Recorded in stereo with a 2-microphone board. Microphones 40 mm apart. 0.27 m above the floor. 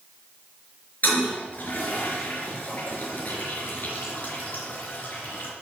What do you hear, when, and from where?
1.0 s a toilet flushing: 45° left (ahead or behind), 4.5 m